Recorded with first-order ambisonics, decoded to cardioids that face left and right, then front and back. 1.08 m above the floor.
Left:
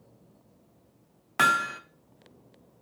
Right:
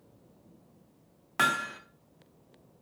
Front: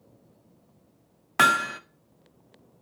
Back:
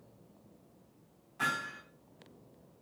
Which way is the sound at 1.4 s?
10° left.